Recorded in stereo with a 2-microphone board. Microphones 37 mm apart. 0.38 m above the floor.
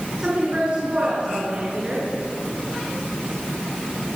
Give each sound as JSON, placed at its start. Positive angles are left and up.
{"t": 0.2, "sound": "a woman speaking", "side_deg": -30, "distance_m": 5.5}